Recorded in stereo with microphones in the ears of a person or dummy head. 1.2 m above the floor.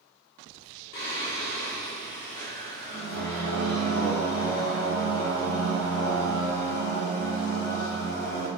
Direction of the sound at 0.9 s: 55° left (ahead or behind).